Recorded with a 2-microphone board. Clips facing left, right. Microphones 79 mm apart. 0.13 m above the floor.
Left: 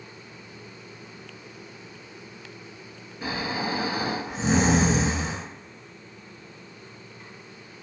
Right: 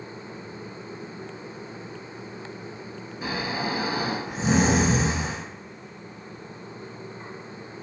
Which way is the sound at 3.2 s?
5° right (ahead or behind).